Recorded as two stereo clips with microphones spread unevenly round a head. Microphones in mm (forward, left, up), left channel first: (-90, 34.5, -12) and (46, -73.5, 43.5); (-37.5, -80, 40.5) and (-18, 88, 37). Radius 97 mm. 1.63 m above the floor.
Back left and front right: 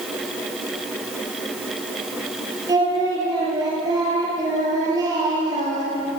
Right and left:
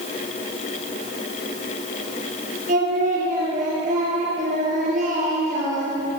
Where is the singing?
30° left, 10 m.